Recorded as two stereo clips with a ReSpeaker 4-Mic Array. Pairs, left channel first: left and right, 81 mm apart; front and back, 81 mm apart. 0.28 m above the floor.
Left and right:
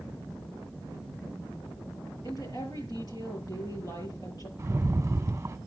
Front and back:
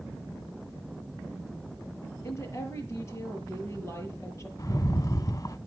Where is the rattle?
40° right, 0.9 m.